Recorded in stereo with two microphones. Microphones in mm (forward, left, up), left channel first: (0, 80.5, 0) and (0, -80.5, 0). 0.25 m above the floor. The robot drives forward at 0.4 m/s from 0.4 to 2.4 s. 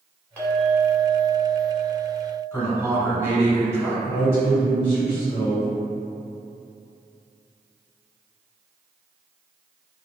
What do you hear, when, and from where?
0.4 s a clink: 10° left (ahead or behind), 1.2 m; by 2.4 s 15° left (ahead or behind), 0.7 m
2.5 s a man speaking: 15° right (ahead or behind), 1.1 m
4.0 s a man speaking: 15° right (ahead or behind), 1.9 m